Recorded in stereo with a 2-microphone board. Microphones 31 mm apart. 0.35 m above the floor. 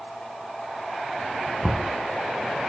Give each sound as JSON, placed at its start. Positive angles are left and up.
{"t": 1.6, "sound": "knocking", "side_deg": 0, "distance_m": 2.5}